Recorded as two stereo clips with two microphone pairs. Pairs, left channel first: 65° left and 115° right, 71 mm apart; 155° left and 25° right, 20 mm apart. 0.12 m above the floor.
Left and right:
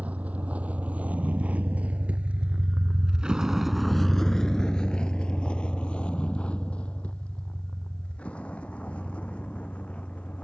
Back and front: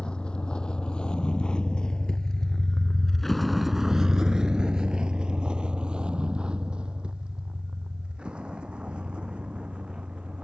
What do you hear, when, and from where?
0.0 s a vehicle: 175° left; by 10.4 s 10° right